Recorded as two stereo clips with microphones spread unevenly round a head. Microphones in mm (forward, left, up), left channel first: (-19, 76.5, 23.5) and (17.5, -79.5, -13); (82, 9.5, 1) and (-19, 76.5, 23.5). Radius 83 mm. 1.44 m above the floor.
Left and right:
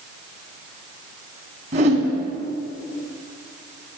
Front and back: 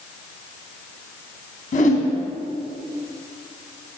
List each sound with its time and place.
1.7 s a whoosh: 25° right, 2.5 m